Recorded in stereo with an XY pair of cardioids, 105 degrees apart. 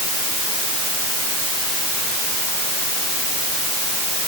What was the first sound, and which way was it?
Only background noise.